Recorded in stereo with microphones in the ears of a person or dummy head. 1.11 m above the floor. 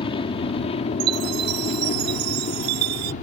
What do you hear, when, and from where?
0.0 s an aircraft: 25° left (ahead or behind); by 3.2 s 40° left (ahead or behind)
1.0 s a chime: 55° right (ahead or behind)